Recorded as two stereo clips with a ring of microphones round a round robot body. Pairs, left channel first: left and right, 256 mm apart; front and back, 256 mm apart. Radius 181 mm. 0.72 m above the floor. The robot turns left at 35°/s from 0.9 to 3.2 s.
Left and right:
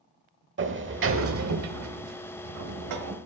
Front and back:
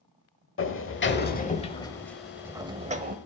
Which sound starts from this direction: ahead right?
A sliding door, at 0.6 s.